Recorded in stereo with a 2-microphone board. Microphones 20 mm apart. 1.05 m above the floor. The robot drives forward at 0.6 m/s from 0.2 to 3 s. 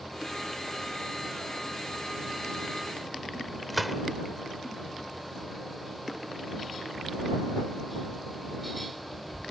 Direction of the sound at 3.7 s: 5° right (ahead or behind).